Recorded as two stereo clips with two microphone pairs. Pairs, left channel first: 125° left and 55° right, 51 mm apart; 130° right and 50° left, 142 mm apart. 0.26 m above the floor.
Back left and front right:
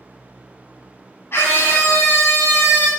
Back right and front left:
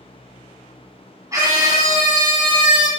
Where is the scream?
110° left, 2.5 m; by 2.9 s 85° left, 2 m.